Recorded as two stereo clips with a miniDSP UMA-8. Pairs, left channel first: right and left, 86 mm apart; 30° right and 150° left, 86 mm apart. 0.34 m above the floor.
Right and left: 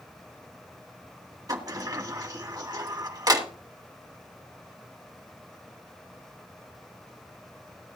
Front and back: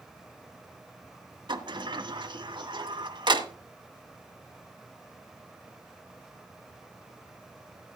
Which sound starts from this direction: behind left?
A sliding door, at 1.5 s.